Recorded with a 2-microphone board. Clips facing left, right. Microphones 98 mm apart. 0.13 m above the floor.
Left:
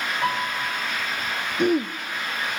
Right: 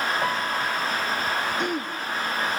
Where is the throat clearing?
55° left (ahead or behind), 1.1 m.